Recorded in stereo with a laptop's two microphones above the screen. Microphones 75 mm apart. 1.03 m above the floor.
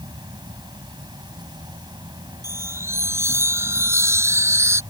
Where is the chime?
35° right (ahead or behind).